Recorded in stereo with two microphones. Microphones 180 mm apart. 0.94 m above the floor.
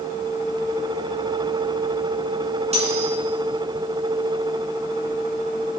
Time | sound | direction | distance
2.7 | cutlery clinking | 40° right (ahead or behind) | 6.5 m